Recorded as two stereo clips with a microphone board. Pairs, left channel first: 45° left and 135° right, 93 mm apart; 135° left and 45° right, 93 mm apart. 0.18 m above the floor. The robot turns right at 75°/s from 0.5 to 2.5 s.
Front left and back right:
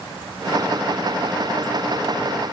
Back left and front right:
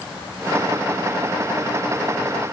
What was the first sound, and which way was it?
Only background noise.